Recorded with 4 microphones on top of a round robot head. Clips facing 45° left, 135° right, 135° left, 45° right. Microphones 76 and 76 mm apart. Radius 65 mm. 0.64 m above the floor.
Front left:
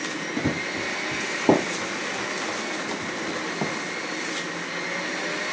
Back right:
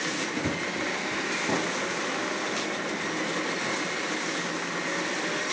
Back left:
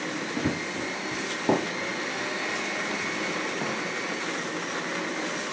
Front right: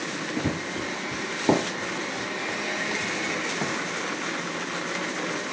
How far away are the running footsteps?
About 0.6 m.